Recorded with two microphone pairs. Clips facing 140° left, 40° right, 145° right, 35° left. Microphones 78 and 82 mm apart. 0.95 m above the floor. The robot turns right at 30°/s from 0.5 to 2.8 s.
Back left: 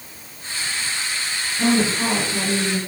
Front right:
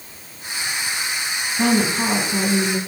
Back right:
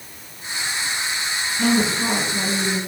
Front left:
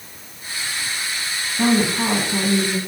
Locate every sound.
1.6 s a woman speaking: 20° left, 6 m; by 2.8 s 55° left, 6 m